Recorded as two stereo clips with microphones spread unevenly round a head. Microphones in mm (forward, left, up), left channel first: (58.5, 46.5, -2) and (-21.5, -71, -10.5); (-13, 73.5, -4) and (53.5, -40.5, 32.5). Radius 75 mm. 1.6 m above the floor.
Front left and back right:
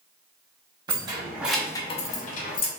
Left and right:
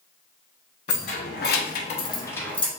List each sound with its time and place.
0.9 s keys jangling: 170° left, 1.3 m; by 2.7 s 30° left, 1.3 m